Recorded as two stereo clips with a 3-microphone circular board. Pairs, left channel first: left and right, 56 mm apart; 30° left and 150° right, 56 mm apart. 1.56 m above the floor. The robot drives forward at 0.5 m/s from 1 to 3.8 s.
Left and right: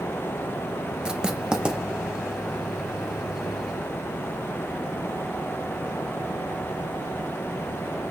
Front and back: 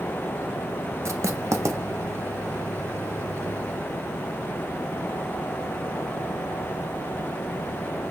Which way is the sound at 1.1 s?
165° right.